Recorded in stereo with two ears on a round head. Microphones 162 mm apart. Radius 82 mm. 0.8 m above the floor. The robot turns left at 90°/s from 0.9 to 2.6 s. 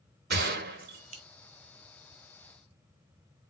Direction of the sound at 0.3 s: 60° right (ahead or behind).